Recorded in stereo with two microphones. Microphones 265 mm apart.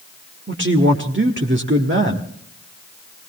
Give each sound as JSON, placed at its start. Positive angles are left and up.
{"t": 0.5, "sound": "a man speaking", "side_deg": -45, "distance_m": 1.4}